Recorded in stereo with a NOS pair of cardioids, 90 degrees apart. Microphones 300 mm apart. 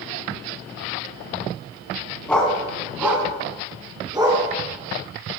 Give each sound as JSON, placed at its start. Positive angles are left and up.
{"t": 2.3, "sound": "a dog barking", "azimuth_deg": 5, "distance_m": 3.5}